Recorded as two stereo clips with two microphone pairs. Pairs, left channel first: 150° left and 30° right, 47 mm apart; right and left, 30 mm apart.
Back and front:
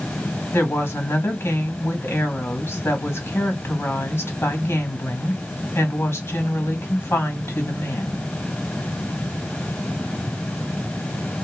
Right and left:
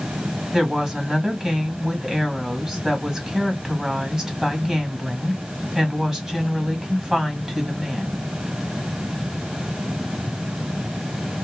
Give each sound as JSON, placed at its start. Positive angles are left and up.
{"t": 0.5, "sound": "a woman speaking", "azimuth_deg": 160, "distance_m": 1.7}